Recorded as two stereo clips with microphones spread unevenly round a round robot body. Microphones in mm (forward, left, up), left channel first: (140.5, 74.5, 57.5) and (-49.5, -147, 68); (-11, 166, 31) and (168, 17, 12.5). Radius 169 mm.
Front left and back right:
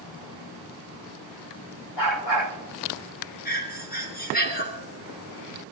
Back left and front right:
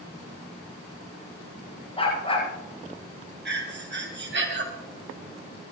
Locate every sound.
2.0 s a dog barking: 75° left, 8.5 m
3.5 s breathing: 5° right, 2.5 m